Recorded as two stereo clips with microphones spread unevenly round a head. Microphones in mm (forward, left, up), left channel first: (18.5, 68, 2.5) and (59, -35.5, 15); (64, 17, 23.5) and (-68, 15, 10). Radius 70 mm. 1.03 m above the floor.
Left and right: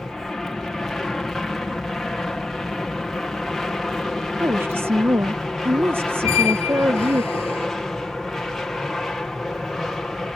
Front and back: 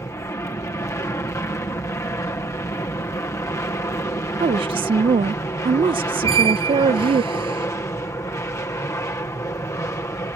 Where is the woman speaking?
145° right.